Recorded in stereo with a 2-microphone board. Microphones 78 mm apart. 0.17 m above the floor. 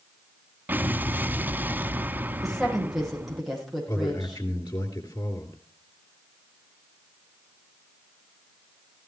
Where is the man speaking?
60° left (ahead or behind), 3 m.